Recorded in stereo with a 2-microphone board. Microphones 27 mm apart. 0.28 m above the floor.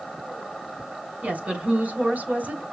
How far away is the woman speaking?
About 3 m.